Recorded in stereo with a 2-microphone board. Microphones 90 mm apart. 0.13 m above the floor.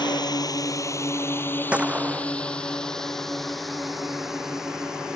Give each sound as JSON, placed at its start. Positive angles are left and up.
{"t": 0.0, "sound": "a drone", "side_deg": 50}
{"t": 1.7, "sound": "a gunshot", "side_deg": -15}